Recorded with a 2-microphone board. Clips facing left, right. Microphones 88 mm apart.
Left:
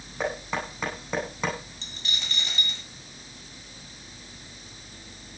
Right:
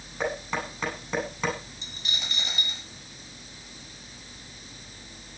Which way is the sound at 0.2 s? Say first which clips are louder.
Even; 10° left (ahead or behind).